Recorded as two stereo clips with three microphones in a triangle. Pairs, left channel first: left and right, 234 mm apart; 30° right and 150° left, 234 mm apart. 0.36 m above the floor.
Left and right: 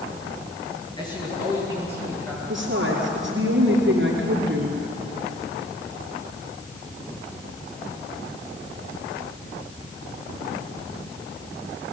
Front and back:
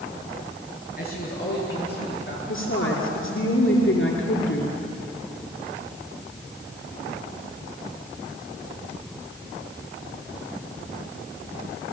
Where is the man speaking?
20° left, 6.5 m; by 2.4 s 5° left, 6.5 m.